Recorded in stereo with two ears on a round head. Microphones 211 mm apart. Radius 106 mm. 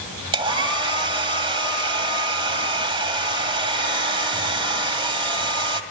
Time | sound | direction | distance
0.3 | a hair dryer | 20° right (ahead or behind) | 1.8 m